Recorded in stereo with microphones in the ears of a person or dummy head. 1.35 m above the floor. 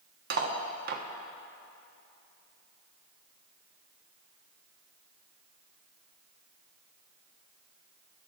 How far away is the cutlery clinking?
About 1.2 m.